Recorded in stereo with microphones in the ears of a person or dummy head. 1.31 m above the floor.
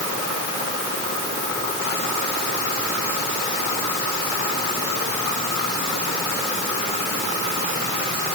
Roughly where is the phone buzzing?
No phone buzzing in this recording.